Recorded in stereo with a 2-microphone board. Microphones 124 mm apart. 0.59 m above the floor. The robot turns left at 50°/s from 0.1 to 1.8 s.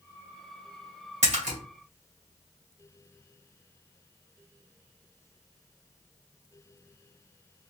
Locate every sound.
1.2 s a splash: 70° right (ahead or behind), 2 m; by 1.6 s 75° right (ahead or behind), 2 m